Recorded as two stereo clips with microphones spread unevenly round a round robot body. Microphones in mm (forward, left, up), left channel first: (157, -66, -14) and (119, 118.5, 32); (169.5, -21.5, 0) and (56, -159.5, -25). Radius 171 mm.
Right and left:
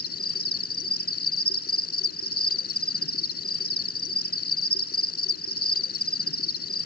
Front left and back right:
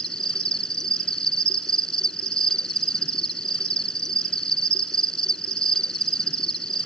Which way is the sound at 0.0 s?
30° right.